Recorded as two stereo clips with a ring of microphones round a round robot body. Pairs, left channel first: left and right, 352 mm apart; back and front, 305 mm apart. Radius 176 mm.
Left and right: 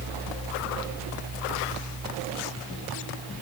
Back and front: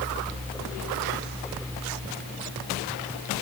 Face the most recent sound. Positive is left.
No sound to turn to.